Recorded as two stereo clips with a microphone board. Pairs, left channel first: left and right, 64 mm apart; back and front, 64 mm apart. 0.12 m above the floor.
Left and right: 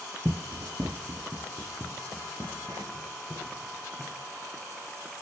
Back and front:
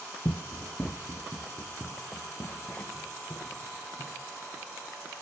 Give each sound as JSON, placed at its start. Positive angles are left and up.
{"t": 0.2, "sound": "running footsteps", "azimuth_deg": -130, "distance_m": 0.7}